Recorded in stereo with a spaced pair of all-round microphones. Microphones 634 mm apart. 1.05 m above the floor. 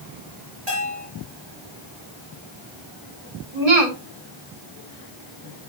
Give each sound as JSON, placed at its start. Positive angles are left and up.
{"t": 0.7, "sound": "a bell", "side_deg": -40, "distance_m": 5.0}
{"t": 3.5, "sound": "a woman speaking", "side_deg": -70, "distance_m": 5.5}